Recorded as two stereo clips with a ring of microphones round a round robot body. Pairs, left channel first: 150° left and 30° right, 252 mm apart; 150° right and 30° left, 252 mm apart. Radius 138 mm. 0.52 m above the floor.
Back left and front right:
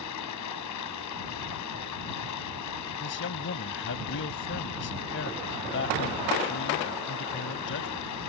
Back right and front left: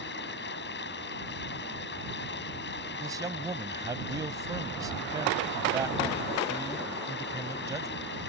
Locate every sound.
0.0 s running water: 160° left
3.0 s a man speaking: 105° left